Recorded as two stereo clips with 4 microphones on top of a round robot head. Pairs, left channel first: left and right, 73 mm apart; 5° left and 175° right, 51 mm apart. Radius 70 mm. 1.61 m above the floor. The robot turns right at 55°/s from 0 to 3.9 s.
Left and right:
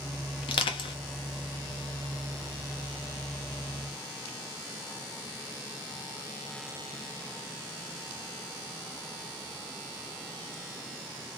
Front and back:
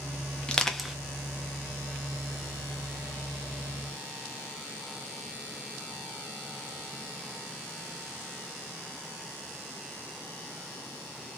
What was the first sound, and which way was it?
Crushing, 75° left.